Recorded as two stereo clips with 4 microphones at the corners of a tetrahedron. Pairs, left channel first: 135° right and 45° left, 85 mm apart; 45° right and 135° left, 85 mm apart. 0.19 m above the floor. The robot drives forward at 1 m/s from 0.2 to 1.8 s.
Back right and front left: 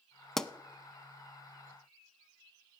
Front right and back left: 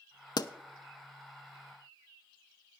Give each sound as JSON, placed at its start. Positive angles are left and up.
{"t": 0.4, "sound": "a pop", "azimuth_deg": -50, "distance_m": 0.6}